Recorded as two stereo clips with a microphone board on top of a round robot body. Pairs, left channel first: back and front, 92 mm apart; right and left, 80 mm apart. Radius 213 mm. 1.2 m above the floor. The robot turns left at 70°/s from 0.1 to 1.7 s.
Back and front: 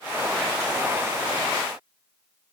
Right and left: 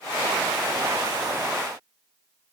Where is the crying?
I don't hear crying.